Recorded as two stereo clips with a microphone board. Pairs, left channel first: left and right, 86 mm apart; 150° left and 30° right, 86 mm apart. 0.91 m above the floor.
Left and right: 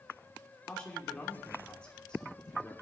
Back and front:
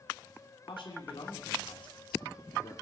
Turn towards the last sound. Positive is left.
turn(degrees=170)